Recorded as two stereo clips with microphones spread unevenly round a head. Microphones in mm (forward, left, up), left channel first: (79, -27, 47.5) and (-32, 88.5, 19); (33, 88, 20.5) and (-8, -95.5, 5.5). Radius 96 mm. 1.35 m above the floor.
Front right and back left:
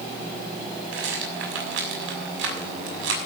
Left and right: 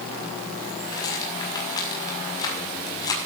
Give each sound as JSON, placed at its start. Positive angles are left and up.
{"t": 0.9, "sound": "a rattle", "azimuth_deg": 150, "distance_m": 6.0}